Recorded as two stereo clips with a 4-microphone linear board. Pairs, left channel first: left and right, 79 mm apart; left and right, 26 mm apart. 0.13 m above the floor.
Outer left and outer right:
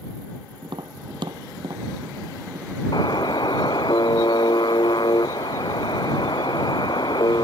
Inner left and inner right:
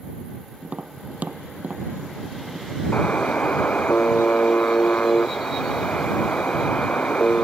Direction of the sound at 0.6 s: 70° right (ahead or behind).